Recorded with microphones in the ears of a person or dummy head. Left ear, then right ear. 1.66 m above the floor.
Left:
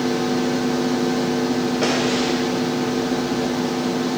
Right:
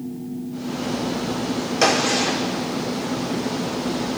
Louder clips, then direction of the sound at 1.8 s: Right 4 dB; 75° right (ahead or behind).